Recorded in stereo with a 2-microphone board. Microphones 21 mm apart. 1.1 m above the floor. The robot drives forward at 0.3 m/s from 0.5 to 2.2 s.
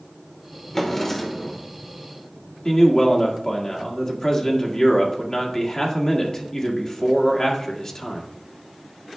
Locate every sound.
0.7 s a drawer: 20° left (ahead or behind), 1.1 m; by 1.6 s 15° left (ahead or behind), 1.3 m
2.6 s a man speaking: 30° left (ahead or behind), 1.7 m